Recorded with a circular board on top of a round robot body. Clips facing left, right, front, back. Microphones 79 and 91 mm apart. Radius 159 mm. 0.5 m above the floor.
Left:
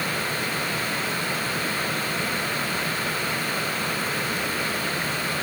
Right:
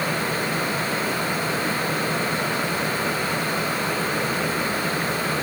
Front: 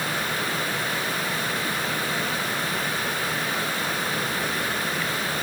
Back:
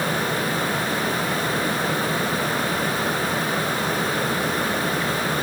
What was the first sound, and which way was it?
Only background noise.